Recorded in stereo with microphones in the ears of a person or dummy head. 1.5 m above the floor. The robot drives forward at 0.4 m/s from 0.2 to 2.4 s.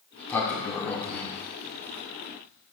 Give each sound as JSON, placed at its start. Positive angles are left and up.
{"t": 0.1, "sound": "a sliding door", "side_deg": 5, "distance_m": 2.0}